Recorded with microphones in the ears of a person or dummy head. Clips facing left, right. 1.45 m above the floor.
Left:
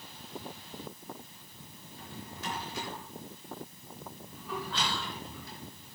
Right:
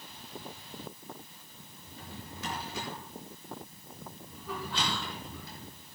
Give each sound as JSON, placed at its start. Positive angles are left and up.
{"t": 1.9, "sound": "a drawer", "side_deg": -75, "distance_m": 5.5}
{"t": 4.7, "sound": "whispering", "side_deg": -15, "distance_m": 5.5}